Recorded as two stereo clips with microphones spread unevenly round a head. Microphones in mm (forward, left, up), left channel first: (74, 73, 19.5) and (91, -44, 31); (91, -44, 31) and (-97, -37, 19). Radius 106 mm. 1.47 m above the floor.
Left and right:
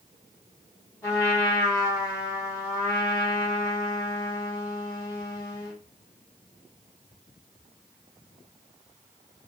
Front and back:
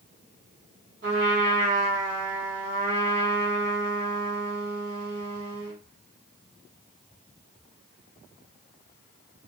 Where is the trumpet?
170° left, 1.1 m.